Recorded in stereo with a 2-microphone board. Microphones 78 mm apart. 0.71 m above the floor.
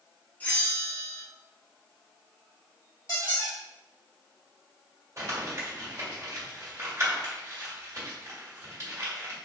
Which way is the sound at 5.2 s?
40° right (ahead or behind).